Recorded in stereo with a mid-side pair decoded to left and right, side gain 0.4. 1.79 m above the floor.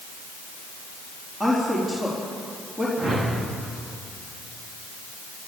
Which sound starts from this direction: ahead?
A woman speaking, at 1.4 s.